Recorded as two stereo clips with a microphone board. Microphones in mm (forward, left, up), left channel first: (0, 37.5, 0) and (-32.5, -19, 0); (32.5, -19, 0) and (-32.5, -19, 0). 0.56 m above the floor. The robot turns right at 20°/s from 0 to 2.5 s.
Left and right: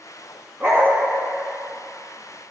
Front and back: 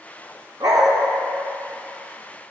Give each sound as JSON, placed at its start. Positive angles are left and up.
{"t": 0.6, "sound": "a dog barking", "azimuth_deg": 175, "distance_m": 1.5}